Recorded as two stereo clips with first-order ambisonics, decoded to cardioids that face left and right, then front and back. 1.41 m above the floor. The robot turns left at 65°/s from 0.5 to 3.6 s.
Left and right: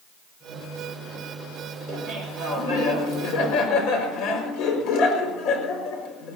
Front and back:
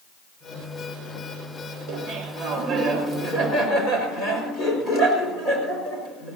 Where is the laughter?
175° left, 5 m; by 6.4 s 65° left, 5 m.